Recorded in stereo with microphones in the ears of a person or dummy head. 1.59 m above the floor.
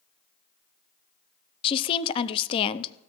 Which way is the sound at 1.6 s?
30° left (ahead or behind).